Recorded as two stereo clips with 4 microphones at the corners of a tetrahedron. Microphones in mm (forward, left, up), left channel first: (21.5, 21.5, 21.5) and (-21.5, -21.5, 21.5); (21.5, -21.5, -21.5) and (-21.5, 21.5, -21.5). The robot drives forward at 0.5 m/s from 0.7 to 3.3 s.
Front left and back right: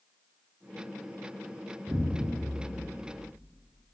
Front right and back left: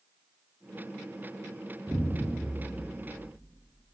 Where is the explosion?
170° right, 0.5 m; by 3.8 s 175° right, 1.1 m.